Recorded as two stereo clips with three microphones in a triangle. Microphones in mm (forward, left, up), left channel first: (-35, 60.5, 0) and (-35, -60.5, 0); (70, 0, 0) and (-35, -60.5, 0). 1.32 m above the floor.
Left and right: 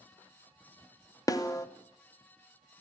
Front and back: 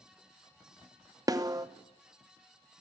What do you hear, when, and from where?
1.3 s a snare drum: 150° left, 0.8 m